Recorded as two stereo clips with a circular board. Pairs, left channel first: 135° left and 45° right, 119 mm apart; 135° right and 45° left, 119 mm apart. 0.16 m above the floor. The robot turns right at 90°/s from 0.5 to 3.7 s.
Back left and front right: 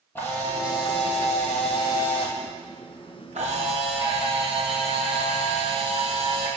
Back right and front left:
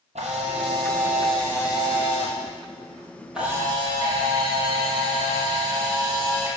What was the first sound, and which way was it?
A camera shutter, 65° left.